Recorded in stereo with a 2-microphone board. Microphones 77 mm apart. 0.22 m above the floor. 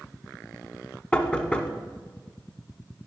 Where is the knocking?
15° left (ahead or behind), 1.1 m.